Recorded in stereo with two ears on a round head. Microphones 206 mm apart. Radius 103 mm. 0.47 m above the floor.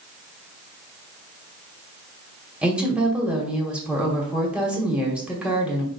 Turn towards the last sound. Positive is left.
turn(degrees=-5)  # may be behind; listen again after turning